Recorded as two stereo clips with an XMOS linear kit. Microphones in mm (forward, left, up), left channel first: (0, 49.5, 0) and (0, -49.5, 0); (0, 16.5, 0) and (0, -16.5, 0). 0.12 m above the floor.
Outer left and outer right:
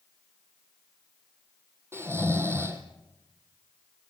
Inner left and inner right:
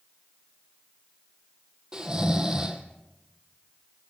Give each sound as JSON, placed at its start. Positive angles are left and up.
{"t": 1.9, "sound": "snoring", "side_deg": -25, "distance_m": 2.0}